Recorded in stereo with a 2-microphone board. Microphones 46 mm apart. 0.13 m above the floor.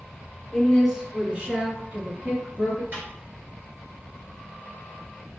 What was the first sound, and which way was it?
A woman speaking, 10° left (ahead or behind).